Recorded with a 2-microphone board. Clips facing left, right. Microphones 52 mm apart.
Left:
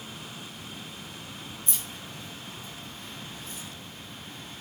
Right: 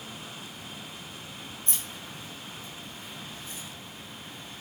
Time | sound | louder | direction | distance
1.7 | keys jangling | even | 50° right (ahead or behind) | 0.7 m